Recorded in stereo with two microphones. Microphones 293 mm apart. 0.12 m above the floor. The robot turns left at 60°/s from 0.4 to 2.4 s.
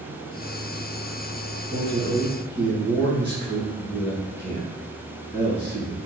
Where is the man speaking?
70° right, 2.0 m; by 6.0 s 110° right, 2.0 m.